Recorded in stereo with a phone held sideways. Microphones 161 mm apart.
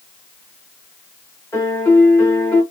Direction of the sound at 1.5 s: 15° left (ahead or behind).